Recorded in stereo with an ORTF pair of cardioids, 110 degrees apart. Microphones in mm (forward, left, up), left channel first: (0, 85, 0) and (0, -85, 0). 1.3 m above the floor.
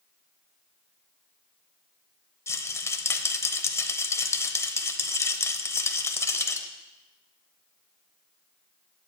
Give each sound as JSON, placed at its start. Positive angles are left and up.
{"t": 2.5, "sound": "a rattle", "azimuth_deg": 15, "distance_m": 0.7}